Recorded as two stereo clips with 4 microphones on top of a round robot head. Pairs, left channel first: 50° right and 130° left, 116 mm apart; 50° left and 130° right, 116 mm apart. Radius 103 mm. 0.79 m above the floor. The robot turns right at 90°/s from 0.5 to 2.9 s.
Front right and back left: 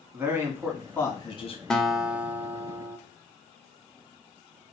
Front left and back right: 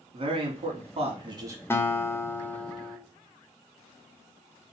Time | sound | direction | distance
0.1 | a man speaking | 165° right | 1.5 m
1.7 | a guitar | 25° left | 0.8 m